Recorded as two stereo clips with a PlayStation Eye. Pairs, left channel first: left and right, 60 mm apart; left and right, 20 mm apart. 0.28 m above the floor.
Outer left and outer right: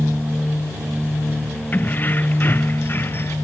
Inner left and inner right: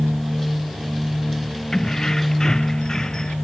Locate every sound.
1.7 s keys jangling: 30° left (ahead or behind); by 3.4 s 35° left (ahead or behind)